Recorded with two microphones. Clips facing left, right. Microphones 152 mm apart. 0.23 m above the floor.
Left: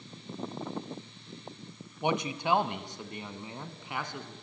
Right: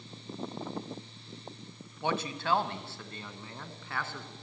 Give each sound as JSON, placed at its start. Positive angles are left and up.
{"t": 2.0, "sound": "a man speaking", "side_deg": 15, "distance_m": 1.2}